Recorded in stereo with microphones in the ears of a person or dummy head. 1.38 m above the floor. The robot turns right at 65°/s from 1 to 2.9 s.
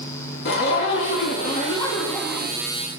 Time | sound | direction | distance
0.5 | a zipper | 100° left | 1.3 m